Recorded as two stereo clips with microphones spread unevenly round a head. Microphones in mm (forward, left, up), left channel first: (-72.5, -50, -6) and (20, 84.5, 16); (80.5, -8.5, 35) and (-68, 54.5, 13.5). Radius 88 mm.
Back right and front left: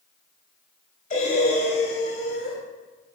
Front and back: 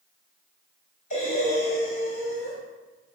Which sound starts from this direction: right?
Breathing, at 1.1 s.